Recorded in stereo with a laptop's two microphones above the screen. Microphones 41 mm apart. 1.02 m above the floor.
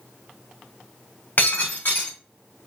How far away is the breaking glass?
About 3.5 m.